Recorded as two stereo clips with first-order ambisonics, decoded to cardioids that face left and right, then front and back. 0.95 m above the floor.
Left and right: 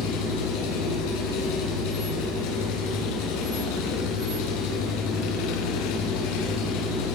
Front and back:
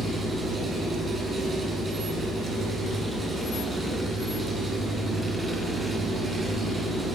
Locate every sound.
0.0 s an engine running: 95° left, 9 m